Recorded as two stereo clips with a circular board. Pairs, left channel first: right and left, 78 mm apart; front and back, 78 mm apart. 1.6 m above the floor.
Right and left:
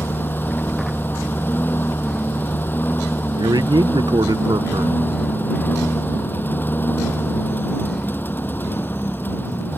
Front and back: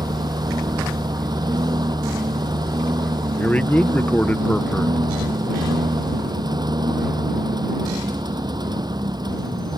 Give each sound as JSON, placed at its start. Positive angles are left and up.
{"t": 0.0, "sound": "a lawn mower", "azimuth_deg": -155}
{"t": 3.3, "sound": "a man speaking", "azimuth_deg": 70}